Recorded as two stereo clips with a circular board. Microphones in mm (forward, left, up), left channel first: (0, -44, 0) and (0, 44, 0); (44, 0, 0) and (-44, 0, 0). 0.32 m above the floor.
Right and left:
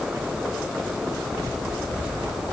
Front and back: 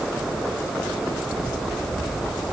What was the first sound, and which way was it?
Only background noise.